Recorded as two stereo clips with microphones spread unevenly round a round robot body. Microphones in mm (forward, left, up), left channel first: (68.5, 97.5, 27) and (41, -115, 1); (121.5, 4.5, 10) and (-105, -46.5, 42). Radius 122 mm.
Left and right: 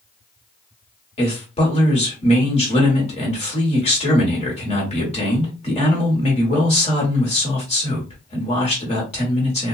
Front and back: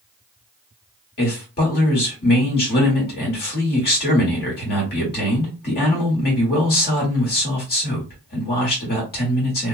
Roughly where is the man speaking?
Ahead left.